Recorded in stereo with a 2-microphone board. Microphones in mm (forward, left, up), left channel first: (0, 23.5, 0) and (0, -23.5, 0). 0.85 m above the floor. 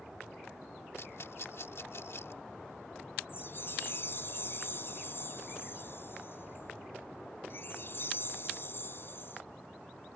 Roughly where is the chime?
Left.